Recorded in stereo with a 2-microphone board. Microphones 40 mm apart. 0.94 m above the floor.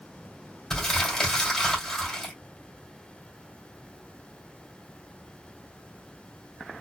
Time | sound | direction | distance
0.7 | crumpling | 15° left (ahead or behind) | 3 m